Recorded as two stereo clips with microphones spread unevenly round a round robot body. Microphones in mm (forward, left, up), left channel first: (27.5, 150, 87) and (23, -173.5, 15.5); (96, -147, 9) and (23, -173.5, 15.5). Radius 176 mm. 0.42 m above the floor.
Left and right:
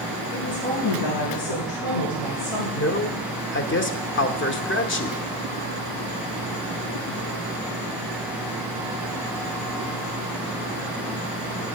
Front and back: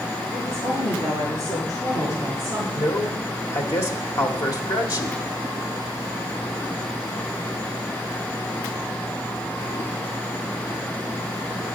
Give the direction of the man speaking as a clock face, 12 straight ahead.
11 o'clock.